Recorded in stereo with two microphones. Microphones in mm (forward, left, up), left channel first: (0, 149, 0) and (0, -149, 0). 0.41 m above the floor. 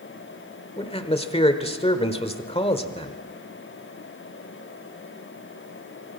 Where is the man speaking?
20° left (ahead or behind), 1.4 m.